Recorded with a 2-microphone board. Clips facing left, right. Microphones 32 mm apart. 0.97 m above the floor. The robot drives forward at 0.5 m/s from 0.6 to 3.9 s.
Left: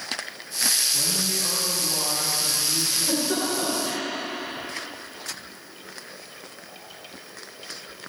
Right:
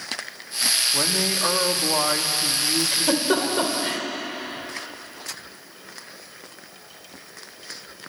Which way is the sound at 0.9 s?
55° right (ahead or behind).